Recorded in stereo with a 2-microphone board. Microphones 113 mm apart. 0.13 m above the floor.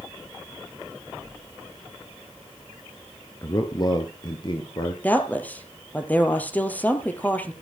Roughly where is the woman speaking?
Centre.